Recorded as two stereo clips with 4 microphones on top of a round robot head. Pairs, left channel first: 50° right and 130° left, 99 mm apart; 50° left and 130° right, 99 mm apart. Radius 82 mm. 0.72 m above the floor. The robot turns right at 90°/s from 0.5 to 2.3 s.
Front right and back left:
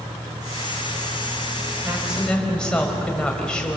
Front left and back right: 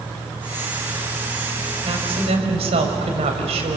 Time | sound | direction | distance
1.8 | a woman speaking | 175° right | 5 m